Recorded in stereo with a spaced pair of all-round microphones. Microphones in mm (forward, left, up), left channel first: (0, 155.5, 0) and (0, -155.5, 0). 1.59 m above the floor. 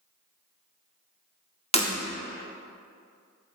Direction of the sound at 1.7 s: 20° left (ahead or behind).